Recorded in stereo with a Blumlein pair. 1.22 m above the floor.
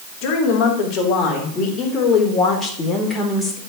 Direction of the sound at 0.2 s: 35° left.